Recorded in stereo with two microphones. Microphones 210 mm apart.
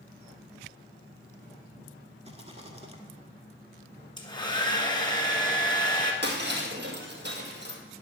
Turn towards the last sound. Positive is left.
turn(degrees=-55)  # may be behind; listen again after turning